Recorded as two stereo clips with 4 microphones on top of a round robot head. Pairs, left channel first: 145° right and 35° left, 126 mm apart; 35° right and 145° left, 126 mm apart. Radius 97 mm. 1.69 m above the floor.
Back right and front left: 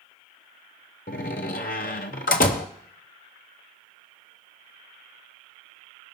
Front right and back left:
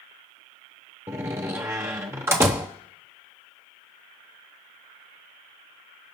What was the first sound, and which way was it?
A door slam, 150° right.